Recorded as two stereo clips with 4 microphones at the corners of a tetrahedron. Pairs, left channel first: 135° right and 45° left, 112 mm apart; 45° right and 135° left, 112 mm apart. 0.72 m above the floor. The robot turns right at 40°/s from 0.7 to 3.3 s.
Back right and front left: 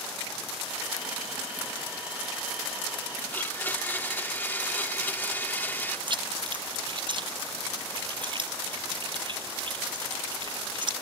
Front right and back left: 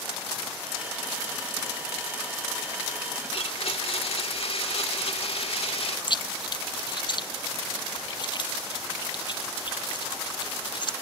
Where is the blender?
65° right.